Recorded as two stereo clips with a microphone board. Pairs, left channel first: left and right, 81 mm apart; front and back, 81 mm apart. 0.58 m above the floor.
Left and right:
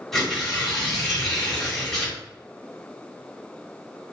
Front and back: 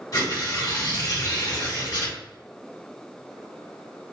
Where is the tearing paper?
5° left, 1.6 m.